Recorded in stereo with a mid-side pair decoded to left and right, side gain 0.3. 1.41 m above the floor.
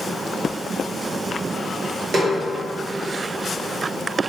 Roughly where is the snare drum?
Right.